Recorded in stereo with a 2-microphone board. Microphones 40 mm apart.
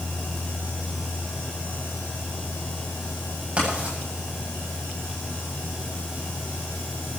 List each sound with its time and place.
3.6 s writing: 30° right (ahead or behind), 9.5 m